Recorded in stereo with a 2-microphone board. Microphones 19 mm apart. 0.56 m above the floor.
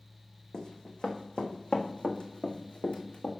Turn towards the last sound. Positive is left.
turn(degrees=75)  # may be behind; listen again after turning